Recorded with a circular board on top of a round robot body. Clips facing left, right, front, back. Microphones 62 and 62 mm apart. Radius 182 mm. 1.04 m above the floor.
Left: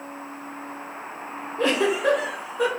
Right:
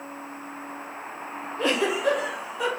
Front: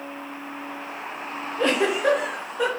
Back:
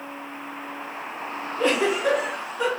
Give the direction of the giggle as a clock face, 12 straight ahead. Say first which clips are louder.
Left 2 dB, even; 11 o'clock.